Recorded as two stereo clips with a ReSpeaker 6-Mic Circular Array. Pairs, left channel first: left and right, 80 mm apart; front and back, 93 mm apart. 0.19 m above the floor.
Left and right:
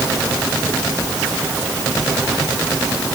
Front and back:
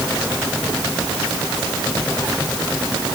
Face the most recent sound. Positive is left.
No sound to turn to.